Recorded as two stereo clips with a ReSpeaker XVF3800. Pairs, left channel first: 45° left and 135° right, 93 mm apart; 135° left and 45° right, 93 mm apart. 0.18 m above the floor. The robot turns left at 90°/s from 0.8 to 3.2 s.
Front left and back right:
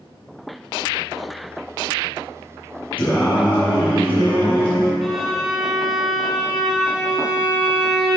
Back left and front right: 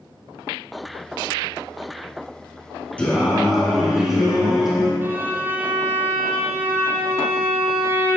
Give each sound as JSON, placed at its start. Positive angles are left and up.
{"t": 3.0, "sound": "singing", "azimuth_deg": 60, "distance_m": 2.5}
{"t": 5.0, "sound": "a violin", "azimuth_deg": -50, "distance_m": 1.2}